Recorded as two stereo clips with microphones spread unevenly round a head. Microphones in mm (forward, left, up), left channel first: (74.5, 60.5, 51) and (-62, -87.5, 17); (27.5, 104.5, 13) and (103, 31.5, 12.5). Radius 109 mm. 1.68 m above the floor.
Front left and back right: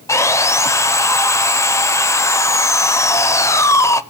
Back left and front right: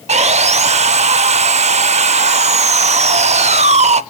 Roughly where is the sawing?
Ahead right.